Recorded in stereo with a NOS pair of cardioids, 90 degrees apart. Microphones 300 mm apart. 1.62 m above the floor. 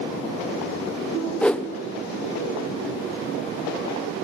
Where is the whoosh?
5° left, 0.7 m.